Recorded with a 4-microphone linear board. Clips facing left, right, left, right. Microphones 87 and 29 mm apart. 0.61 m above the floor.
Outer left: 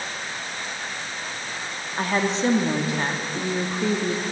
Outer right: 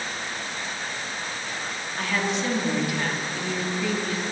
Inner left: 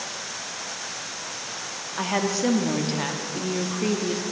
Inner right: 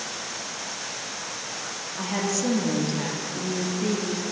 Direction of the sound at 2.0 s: 30° left (ahead or behind).